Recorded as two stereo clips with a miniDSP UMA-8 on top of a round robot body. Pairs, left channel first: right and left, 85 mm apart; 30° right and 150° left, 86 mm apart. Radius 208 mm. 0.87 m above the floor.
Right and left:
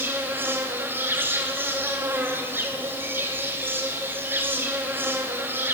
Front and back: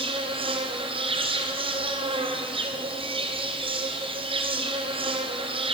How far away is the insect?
About 2.5 m.